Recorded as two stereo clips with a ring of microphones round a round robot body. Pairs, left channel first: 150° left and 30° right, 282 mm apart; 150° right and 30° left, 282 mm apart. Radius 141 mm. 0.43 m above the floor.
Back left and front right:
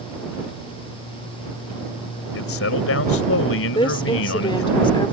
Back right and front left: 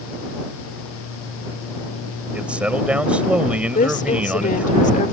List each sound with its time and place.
2.3 s a man speaking: 115° left
3.8 s a woman speaking: 160° right